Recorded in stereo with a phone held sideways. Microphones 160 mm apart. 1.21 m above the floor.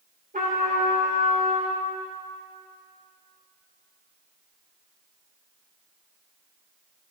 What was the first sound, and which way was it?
A trumpet, 60° right (ahead or behind).